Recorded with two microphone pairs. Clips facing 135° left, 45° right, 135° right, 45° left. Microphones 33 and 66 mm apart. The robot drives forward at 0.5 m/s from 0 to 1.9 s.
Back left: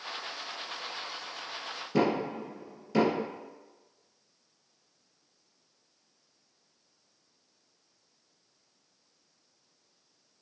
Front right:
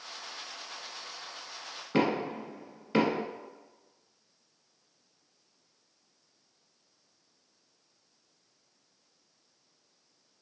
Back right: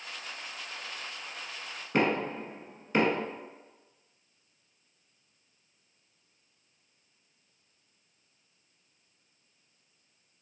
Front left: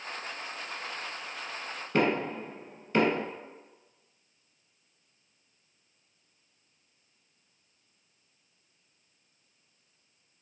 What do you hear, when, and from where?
1.9 s knocking: 70° right, 1.2 m